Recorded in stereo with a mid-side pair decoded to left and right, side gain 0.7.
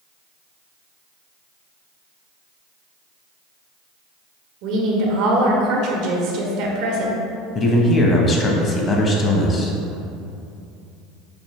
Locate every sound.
4.6 s a woman speaking: 65° right, 0.9 m
7.5 s a man speaking: 30° left, 0.8 m